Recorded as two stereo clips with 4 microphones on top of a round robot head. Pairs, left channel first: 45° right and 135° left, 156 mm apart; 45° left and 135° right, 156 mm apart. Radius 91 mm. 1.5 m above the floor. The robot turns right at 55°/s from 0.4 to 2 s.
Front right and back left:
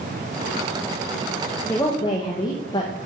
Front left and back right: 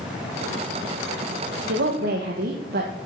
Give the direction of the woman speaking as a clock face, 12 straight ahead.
4 o'clock.